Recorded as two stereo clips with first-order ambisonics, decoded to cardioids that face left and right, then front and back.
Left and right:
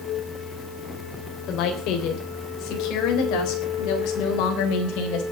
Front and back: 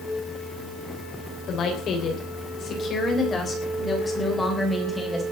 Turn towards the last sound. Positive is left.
turn(degrees=85)